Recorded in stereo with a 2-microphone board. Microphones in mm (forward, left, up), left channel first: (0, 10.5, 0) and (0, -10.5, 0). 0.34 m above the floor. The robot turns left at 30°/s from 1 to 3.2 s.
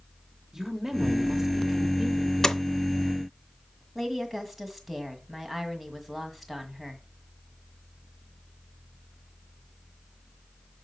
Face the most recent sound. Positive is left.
turn(degrees=5)  # may be behind; listen again after turning